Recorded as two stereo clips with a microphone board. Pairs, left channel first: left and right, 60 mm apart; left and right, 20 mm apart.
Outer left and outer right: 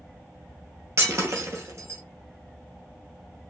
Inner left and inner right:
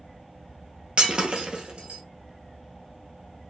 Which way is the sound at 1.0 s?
50° right (ahead or behind).